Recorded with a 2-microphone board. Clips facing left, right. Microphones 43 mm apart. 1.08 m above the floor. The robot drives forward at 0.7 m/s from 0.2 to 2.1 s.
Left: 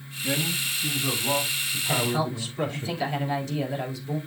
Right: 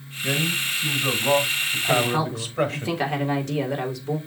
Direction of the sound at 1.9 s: 55° right (ahead or behind).